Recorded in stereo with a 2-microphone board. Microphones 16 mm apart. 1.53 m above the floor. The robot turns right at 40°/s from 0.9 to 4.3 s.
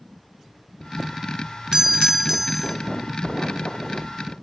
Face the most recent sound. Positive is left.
turn(degrees=50)